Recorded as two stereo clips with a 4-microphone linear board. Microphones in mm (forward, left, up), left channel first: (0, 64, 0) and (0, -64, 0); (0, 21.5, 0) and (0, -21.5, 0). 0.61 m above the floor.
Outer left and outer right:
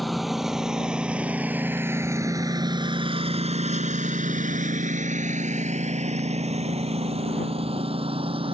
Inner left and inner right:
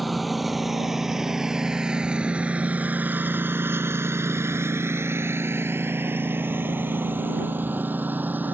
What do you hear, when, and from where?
0.0 s a lawn mower: centre (ahead or behind); by 8.5 s 45° right (ahead or behind)